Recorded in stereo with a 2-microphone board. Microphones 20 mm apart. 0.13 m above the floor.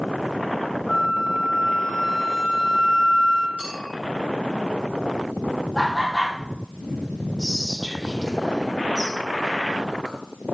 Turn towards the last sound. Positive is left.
turn(degrees=20)  # may be behind; listen again after turning